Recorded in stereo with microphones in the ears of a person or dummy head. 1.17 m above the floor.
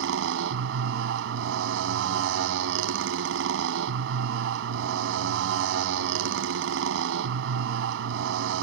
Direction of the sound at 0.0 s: 75° right (ahead or behind).